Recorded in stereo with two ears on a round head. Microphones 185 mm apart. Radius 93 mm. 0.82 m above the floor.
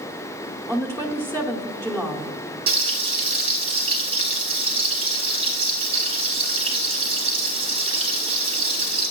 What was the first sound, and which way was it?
A woman speaking, 10° left (ahead or behind).